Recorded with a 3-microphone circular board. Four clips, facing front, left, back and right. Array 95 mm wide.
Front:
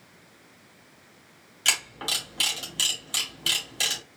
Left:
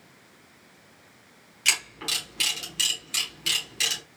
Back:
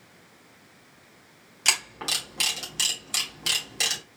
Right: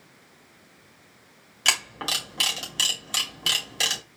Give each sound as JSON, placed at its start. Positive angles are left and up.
{"t": 1.6, "sound": "a camera shutter", "azimuth_deg": -100, "distance_m": 1.9}